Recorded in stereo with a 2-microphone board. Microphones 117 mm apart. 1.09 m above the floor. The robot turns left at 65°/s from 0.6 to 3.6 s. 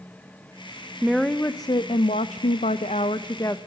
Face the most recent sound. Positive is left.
turn(degrees=20)